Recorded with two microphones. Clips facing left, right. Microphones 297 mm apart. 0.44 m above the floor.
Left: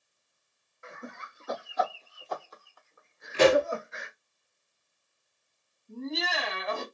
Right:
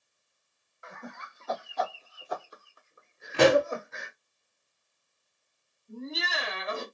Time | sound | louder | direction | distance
0.8 | laughter | left 1 dB | 30° left (ahead or behind) | 1.4 m
3.3 | a pop | even | 75° right (ahead or behind) | 1.2 m
5.9 | laughter | left 3 dB | 30° right (ahead or behind) | 2 m